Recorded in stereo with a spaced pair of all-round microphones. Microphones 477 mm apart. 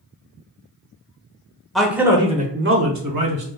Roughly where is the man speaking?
Centre.